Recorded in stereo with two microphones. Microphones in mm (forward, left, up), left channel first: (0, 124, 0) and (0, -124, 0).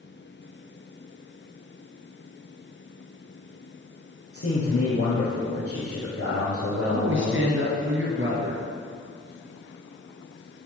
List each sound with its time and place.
4.3 s a man speaking: 65° left (ahead or behind), 3 m
6.9 s a woman speaking: 55° right (ahead or behind), 2 m